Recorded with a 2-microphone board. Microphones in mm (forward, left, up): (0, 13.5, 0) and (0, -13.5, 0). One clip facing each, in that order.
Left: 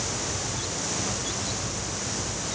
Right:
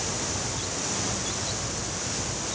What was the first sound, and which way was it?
Only background noise.